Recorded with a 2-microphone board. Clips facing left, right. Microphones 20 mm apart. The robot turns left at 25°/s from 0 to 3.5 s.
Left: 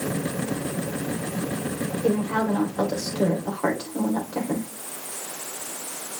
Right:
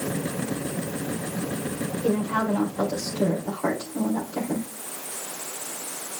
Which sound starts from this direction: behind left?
A woman speaking, at 2.0 s.